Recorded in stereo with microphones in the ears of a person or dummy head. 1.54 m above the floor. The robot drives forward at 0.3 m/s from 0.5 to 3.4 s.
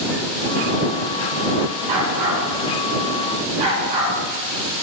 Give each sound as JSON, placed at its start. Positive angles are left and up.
{"t": 1.9, "sound": "a dog barking", "side_deg": -45, "distance_m": 1.8}